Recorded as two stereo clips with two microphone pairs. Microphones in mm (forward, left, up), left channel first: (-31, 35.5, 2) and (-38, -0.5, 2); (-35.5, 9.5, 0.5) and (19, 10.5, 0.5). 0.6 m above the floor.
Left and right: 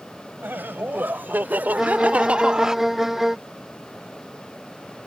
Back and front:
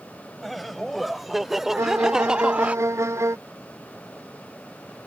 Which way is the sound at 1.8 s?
20° right.